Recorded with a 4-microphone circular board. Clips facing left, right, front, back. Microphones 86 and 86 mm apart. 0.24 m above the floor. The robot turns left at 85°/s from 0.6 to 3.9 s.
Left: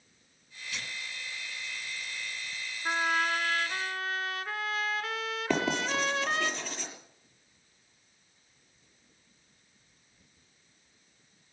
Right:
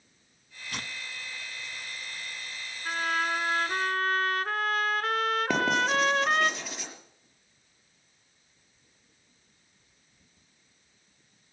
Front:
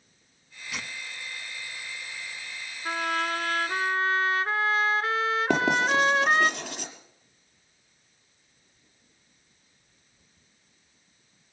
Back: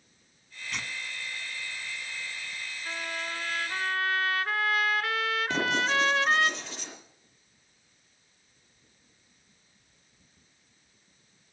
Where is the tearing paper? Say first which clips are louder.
Right 2 dB, even; 80° right, 1.2 m; by 2.6 s 115° left, 1.2 m.